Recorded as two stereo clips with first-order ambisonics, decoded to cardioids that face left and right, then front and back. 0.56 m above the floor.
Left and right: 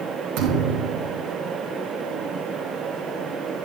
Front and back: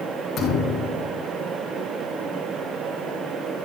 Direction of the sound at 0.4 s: 65° right.